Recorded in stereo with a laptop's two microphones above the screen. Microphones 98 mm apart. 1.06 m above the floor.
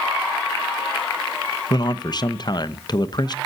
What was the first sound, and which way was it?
A man speaking, 45° left (ahead or behind).